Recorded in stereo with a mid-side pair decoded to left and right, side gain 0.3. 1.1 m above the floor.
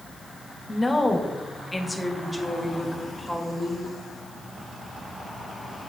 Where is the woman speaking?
30° left, 1.4 m; by 3.9 s 5° right, 3 m.